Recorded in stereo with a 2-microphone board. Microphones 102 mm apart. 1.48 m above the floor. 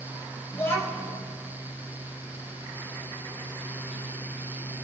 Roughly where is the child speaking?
Left.